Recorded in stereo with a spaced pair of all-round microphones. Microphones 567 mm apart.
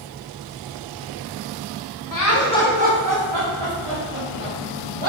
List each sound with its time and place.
2.1 s laughter: 35° left (ahead or behind), 1.0 m; by 5.1 s 75° right (ahead or behind), 2.5 m